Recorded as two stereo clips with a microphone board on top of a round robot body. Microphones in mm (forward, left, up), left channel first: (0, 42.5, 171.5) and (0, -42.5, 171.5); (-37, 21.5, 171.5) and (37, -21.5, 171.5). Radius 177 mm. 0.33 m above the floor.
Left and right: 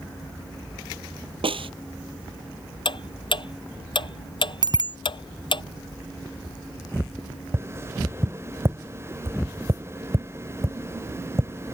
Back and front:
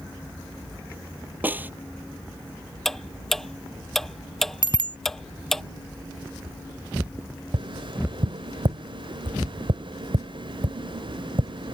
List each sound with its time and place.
1.4 s a snare drum: 100° right
2.9 s ticking: 65° left
4.6 s a bicycle bell: 55° right
7.5 s tapping: 30° right